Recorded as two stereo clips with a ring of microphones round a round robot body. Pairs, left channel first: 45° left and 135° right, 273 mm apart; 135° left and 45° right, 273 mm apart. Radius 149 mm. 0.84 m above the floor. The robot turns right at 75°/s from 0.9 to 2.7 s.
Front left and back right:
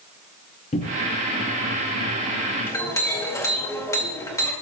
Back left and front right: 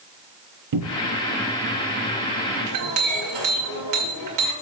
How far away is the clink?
About 2 m.